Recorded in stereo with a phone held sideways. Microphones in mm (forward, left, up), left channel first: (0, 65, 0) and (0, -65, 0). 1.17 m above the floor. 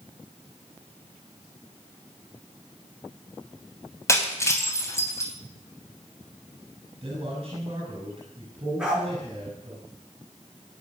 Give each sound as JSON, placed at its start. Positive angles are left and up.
{"t": 4.1, "sound": "breaking glass", "side_deg": 20, "distance_m": 3.5}
{"t": 7.0, "sound": "a man speaking", "side_deg": -40, "distance_m": 7.5}
{"t": 8.8, "sound": "a dog barking", "side_deg": -5, "distance_m": 8.5}